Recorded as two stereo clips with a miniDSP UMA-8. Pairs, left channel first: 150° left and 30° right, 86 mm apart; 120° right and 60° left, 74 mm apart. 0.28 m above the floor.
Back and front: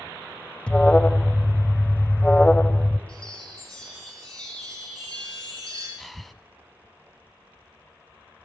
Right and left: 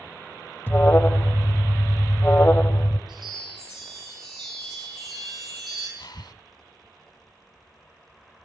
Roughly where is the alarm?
Behind right.